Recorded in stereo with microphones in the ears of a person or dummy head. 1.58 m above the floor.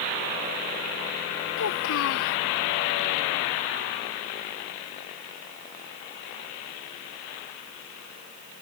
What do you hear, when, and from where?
1.6 s a child speaking: 75° left (ahead or behind)